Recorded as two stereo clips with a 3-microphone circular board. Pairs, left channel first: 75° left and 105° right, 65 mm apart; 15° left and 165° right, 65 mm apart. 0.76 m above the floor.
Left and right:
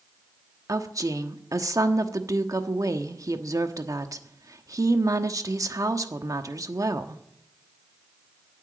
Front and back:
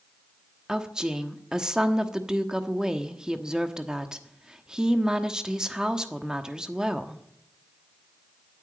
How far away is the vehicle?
I don't hear a vehicle.